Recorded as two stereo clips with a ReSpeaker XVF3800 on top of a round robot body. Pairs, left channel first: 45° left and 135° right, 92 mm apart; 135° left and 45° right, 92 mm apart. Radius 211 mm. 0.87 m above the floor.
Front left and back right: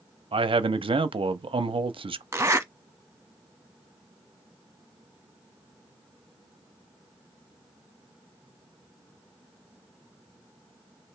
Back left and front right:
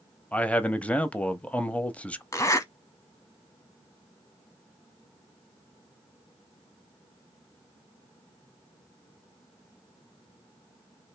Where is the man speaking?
150° right, 0.7 m.